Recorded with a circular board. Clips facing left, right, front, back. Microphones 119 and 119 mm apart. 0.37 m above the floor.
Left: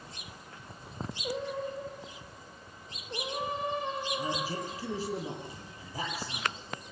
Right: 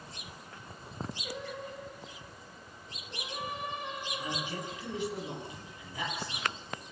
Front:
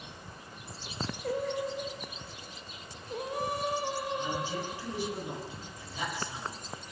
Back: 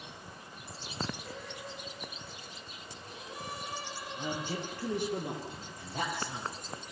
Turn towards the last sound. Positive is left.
turn(degrees=145)